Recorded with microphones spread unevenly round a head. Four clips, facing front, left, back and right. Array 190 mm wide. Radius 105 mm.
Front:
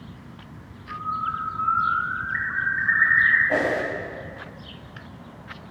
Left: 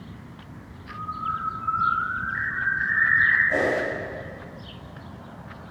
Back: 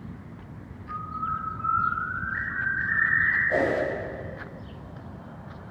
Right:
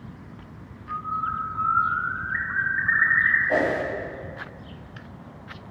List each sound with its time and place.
0.9 s a bird: 45° right, 2.5 m
3.5 s a whoosh: 35° right, 3 m